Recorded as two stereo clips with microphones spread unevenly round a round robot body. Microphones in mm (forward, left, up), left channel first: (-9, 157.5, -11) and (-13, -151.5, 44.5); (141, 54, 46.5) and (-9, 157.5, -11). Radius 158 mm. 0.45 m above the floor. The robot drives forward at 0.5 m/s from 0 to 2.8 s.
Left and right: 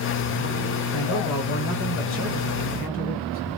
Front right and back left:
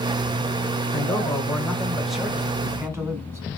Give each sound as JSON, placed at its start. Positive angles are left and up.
{"t": 0.9, "sound": "a man speaking", "azimuth_deg": 45, "distance_m": 1.5}